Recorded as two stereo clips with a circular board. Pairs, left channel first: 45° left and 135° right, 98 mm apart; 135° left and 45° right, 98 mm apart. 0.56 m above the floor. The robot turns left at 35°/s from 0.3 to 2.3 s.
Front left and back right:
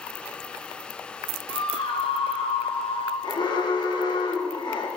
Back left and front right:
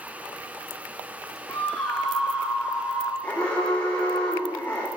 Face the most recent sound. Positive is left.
turn(degrees=60)